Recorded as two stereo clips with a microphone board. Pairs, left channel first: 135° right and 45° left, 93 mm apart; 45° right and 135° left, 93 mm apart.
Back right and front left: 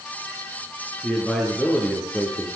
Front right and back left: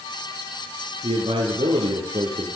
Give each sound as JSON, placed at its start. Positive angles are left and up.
{"t": 1.0, "sound": "a man speaking", "azimuth_deg": 135, "distance_m": 6.5}